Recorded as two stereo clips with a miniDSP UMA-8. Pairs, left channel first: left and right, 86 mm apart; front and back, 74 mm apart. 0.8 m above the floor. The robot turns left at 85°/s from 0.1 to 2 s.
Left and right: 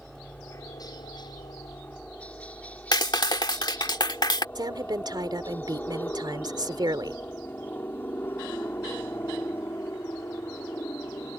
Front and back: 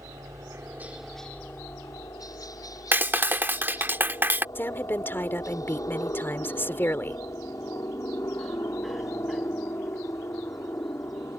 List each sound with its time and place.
0.0 s a helicopter: 175° left; by 11.4 s 40° left
2.9 s a clap: 120° left
4.5 s a woman speaking: 60° right